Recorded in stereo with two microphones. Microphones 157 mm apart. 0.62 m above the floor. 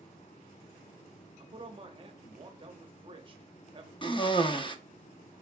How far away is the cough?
About 0.6 m.